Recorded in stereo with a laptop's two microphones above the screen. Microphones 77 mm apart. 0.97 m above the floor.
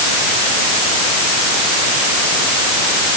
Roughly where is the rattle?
No rattle in this recording.